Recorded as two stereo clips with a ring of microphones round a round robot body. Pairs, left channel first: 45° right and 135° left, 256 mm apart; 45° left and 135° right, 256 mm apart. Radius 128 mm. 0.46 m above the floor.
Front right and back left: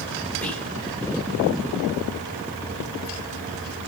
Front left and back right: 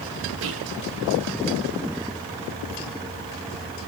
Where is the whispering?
130° right, 1.0 m.